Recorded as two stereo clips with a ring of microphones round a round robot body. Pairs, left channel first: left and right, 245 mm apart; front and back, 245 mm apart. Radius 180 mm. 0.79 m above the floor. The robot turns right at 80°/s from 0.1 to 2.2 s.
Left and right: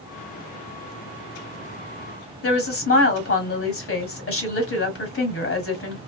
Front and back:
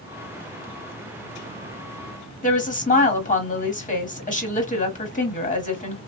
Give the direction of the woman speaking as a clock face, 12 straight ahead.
10 o'clock.